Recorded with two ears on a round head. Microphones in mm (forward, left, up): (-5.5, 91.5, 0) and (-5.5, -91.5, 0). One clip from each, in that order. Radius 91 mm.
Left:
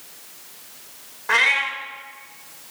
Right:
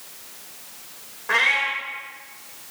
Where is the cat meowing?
30° left (ahead or behind), 1.5 m.